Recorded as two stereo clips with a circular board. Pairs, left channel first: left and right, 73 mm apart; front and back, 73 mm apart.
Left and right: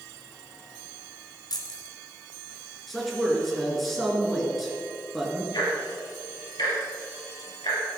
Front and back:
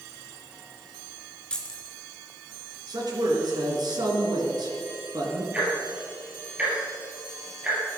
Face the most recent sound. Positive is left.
turn(degrees=105)